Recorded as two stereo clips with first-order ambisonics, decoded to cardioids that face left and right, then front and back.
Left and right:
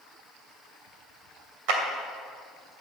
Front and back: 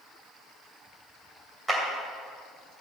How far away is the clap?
About 2.5 m.